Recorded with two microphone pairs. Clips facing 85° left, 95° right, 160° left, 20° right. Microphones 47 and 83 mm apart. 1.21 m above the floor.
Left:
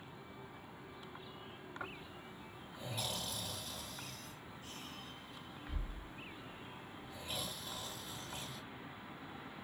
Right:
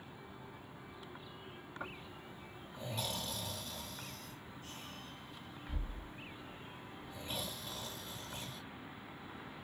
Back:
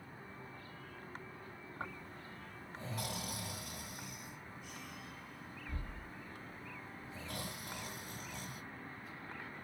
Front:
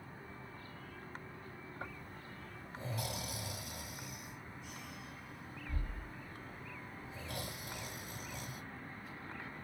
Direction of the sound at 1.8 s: 170° left.